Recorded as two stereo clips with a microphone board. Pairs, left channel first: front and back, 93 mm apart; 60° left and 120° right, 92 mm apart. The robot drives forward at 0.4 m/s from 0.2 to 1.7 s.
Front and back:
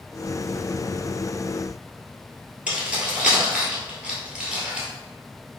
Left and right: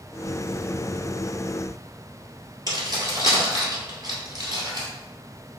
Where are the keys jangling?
105° right, 1.6 m.